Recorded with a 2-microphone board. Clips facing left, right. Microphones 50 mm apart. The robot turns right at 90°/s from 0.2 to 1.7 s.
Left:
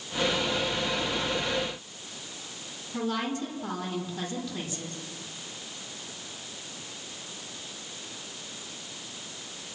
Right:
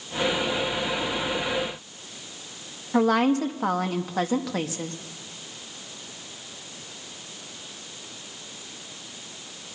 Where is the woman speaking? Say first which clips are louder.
Right 10 dB; 85° right, 2.5 m.